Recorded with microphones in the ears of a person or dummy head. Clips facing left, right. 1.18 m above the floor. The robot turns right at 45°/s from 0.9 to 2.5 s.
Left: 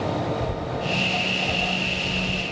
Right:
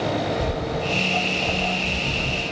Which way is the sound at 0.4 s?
45° right (ahead or behind).